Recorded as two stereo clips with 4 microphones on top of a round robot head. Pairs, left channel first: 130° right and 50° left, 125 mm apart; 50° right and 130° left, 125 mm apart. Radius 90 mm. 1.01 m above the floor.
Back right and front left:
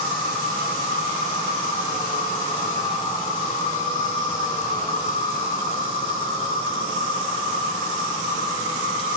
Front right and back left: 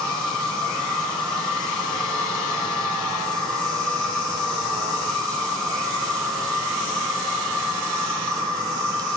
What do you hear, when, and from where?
0.0 s an insect: 135° right, 8 m